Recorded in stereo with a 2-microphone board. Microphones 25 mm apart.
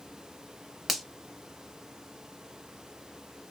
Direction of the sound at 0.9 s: 5° left (ahead or behind).